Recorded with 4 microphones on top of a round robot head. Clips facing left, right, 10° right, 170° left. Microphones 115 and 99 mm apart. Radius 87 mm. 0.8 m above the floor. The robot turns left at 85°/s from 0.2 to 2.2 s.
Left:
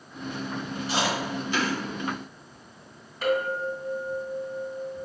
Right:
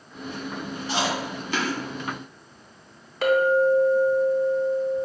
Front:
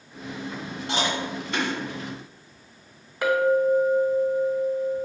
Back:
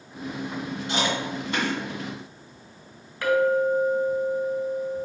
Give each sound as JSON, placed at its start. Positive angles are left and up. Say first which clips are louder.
{"t": 0.9, "sound": "chewing", "louder": "right 1 dB, even", "azimuth_deg": -60, "distance_m": 1.7}
{"t": 3.2, "sound": "a clink", "louder": "right 7 dB, front 1 dB", "azimuth_deg": -85, "distance_m": 0.9}